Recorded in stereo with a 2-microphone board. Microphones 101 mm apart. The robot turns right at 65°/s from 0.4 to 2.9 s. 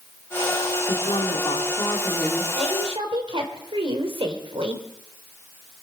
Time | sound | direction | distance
0.9 | a woman speaking | 80° left | 2 m
2.5 | a woman speaking | 80° right | 2.5 m